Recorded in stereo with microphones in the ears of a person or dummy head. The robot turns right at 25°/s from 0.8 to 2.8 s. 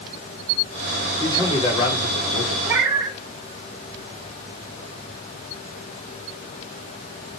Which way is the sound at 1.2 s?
20° left.